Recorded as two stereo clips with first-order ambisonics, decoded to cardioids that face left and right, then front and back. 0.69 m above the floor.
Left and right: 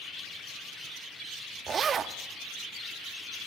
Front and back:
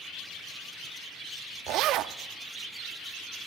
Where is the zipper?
150° right, 0.6 m.